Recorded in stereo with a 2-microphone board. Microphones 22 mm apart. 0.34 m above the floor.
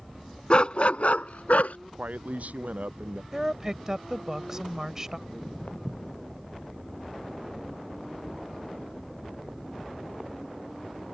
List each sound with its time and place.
0.5 s a dog barking: 40° left (ahead or behind); by 1.8 s 85° left
1.9 s a man speaking: 85° right
3.3 s a woman speaking: 20° right (ahead or behind)
5.3 s footsteps: 75° left (ahead or behind); by 10.3 s 15° right (ahead or behind)